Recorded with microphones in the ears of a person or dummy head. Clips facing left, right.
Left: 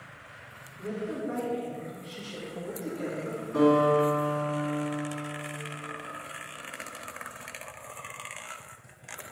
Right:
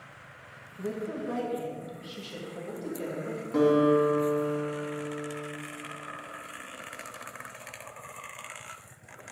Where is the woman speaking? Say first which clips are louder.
Even; 60° right (ahead or behind), 1.5 m; by 3.4 s 5° right (ahead or behind), 2 m.